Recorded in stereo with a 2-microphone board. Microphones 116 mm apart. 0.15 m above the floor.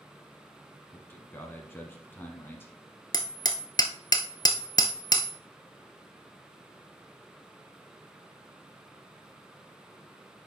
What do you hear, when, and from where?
0.9 s a man speaking: 20° left (ahead or behind), 1.1 m
3.1 s hammering: 40° left (ahead or behind), 0.8 m